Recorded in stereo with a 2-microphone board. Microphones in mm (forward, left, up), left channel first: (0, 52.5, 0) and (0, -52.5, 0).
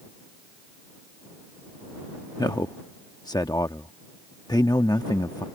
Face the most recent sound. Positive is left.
turn(degrees=40)  # may be behind; listen again after turning